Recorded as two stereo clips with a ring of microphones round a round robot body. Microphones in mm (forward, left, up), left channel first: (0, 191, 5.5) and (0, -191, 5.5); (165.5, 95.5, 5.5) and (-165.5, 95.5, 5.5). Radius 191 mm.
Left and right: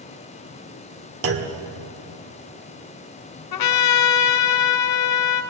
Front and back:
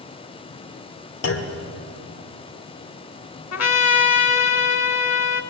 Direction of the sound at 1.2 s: 45° right.